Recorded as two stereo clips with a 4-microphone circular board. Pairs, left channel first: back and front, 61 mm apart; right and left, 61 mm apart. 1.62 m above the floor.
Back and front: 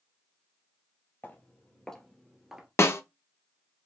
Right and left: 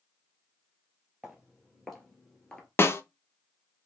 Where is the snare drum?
140° right, 0.5 m.